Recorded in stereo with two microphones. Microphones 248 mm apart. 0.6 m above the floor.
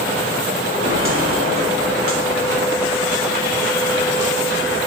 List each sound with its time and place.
0.8 s footsteps: 55° right (ahead or behind), 6 m; by 4.8 s 85° right, 5.5 m